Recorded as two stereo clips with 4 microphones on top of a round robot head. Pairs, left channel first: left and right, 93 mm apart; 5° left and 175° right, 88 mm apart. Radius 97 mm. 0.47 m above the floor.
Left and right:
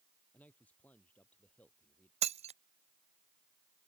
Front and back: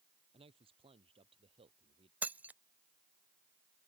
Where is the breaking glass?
100° right.